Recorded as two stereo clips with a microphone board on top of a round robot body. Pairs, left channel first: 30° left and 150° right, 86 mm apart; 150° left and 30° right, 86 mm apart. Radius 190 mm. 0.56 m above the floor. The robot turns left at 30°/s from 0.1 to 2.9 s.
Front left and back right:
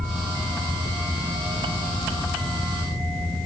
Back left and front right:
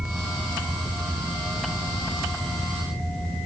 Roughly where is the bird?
No bird in this recording.